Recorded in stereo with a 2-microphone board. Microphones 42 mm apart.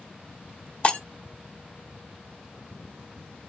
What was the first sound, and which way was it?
Breaking glass, 30° left (ahead or behind).